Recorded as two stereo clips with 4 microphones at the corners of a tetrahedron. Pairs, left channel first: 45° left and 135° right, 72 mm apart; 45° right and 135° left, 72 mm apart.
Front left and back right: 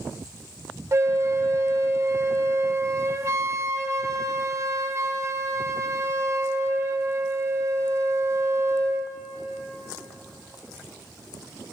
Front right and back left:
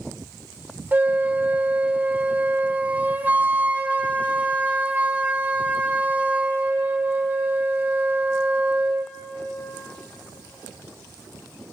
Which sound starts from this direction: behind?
A flute, at 0.9 s.